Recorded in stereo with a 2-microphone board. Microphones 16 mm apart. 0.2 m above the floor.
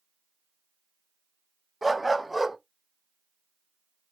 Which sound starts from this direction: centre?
A dog barking, at 1.8 s.